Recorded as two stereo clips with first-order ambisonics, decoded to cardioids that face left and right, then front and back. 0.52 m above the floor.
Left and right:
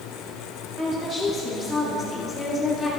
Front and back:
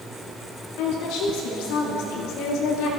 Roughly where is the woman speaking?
Ahead right.